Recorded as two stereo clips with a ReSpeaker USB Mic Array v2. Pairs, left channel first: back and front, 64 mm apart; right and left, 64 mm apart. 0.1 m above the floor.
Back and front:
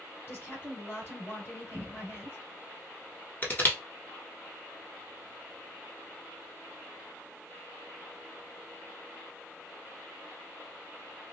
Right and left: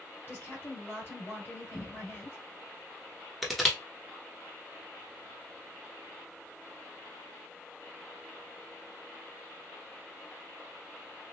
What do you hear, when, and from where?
0.3 s a woman speaking: 130° right, 2.5 m
1.7 s a cupboard door: 25° left, 0.9 m
3.4 s crushing: straight behind, 1.0 m